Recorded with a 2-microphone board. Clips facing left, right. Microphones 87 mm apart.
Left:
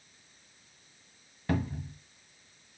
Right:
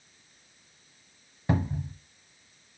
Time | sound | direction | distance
1.5 | a cupboard door | 20° right (ahead or behind) | 1.0 m